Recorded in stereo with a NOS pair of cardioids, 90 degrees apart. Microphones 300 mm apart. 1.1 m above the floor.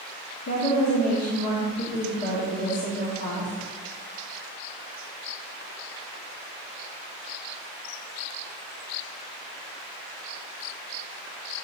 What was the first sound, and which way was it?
A woman speaking, 65° left.